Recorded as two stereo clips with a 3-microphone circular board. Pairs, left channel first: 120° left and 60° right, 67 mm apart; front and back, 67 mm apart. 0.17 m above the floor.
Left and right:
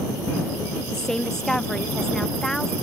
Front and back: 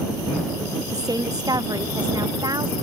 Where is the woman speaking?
160° right.